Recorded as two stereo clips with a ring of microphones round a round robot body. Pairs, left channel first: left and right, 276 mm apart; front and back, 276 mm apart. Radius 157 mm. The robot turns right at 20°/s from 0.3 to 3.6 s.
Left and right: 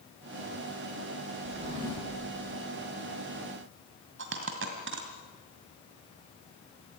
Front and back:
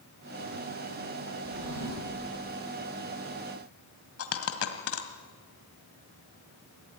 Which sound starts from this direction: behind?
A drawer, at 1.4 s.